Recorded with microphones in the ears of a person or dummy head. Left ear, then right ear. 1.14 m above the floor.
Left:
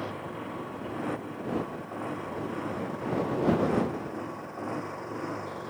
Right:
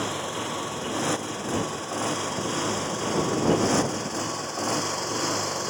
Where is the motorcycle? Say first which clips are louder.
Right 7 dB; 75° right (ahead or behind).